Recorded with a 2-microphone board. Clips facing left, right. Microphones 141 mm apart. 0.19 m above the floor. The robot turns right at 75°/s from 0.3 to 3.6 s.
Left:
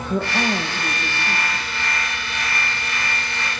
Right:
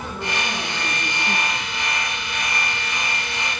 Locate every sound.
0.1 s a woman speaking: 110° left, 4 m; by 1.7 s 145° right, 4 m